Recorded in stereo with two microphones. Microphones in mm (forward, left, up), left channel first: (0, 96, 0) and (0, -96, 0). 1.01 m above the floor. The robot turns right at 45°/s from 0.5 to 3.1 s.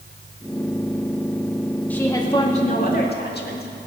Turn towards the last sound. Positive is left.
turn(degrees=65)